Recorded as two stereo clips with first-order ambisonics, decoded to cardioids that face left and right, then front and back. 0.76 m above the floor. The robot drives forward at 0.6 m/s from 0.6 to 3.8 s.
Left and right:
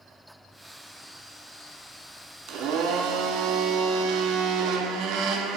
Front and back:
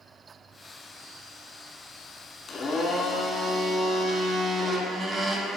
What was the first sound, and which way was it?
A blender, 60° right.